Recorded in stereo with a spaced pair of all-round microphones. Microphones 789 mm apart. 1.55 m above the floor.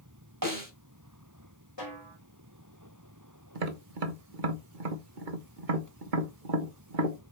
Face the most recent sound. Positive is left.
turn(degrees=-65)  # may be behind; listen again after turning